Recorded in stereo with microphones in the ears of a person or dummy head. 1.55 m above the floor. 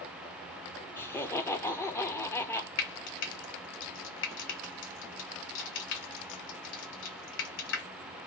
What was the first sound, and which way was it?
Laughter, 10° left (ahead or behind).